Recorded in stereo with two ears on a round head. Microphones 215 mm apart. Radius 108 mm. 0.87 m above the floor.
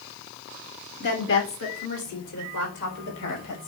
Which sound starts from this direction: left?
A woman speaking, at 1.0 s.